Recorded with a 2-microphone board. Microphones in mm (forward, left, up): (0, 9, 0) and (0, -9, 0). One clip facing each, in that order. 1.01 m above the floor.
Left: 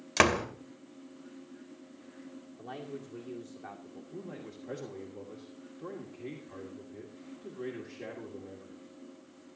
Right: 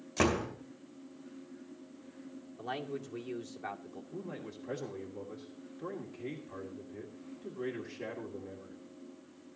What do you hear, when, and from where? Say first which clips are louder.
0.2 s a door slam: left 5 dB; 85° left, 2.5 m
2.6 s a man speaking: right 4 dB; 40° right (ahead or behind), 2.5 m
4.1 s a man speaking: right 1 dB; 5° right (ahead or behind), 2.5 m